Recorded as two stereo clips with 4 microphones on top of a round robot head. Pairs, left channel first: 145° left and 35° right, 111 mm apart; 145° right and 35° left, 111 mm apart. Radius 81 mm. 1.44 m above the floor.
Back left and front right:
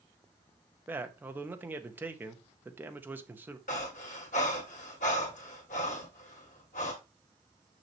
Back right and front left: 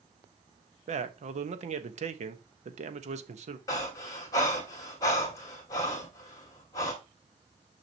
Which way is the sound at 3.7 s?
155° left.